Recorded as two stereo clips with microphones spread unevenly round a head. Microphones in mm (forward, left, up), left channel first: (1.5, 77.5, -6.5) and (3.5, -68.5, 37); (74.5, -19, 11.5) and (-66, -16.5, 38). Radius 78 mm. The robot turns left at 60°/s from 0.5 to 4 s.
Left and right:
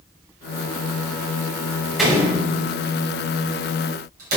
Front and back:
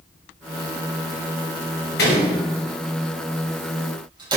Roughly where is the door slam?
Ahead.